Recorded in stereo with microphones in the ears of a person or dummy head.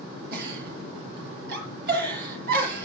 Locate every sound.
0.3 s a giggle: 60° right (ahead or behind), 5.5 m